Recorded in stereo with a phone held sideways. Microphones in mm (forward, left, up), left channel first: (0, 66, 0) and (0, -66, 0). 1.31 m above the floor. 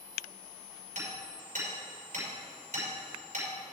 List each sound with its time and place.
0.9 s hammering: 85° right, 4.5 m